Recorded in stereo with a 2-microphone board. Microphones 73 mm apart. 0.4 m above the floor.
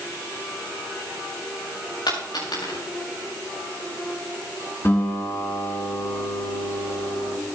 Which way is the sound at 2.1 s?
80° left.